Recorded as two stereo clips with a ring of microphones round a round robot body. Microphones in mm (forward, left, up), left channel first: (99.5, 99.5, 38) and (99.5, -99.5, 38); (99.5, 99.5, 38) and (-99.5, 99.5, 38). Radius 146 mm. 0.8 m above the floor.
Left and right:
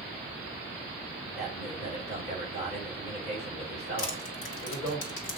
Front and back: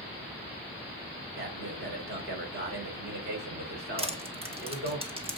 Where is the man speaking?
145° left, 3.5 m.